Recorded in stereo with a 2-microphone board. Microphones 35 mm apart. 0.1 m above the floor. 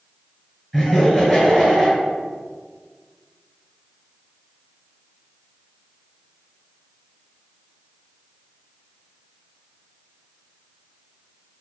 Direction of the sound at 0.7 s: 10° left (ahead or behind).